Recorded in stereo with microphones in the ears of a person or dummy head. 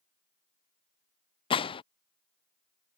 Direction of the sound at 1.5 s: 30° left (ahead or behind).